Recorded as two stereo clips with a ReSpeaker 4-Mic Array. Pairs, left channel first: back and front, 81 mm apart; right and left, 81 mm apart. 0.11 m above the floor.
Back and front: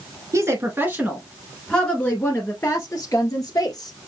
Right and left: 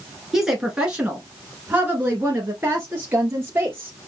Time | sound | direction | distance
0.3 | a woman speaking | 10° left | 1.3 m